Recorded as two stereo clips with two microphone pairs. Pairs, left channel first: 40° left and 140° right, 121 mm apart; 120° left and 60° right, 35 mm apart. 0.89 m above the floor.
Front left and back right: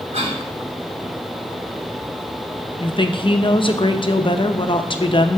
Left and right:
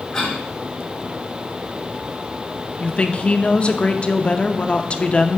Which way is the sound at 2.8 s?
75° left.